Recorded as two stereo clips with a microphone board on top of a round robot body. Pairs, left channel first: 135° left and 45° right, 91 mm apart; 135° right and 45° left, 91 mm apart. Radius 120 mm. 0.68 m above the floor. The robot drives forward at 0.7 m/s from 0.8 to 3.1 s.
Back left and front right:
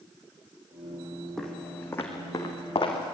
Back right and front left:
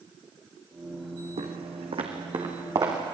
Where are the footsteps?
50° left, 3 m; by 3.2 s 100° left, 4 m.